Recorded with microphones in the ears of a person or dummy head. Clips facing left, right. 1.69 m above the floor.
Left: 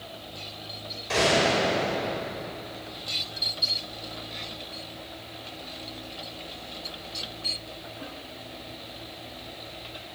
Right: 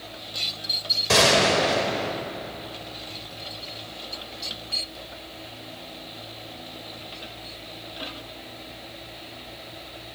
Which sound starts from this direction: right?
A gunshot, at 1.1 s.